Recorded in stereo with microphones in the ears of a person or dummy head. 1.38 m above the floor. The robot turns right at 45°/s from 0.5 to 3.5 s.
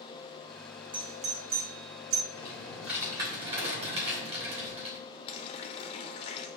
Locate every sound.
0.9 s a doorbell: 20° right (ahead or behind), 0.8 m; by 2.2 s 75° right (ahead or behind), 0.8 m
2.3 s typing on a keyboard: 160° left, 1.8 m; by 5.0 s 145° right, 1.8 m
5.3 s a running tap: 30° left (ahead or behind), 0.7 m